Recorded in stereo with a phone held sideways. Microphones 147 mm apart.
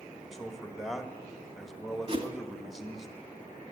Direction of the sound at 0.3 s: Centre (ahead or behind).